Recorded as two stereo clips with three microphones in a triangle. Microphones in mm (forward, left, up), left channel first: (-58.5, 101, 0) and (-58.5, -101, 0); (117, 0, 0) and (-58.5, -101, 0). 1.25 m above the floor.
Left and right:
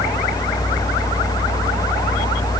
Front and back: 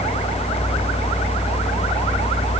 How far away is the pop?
I don't hear a pop.